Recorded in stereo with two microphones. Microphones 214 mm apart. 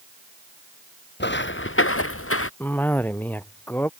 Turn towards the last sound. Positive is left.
turn(degrees=10)  # may be behind; listen again after turning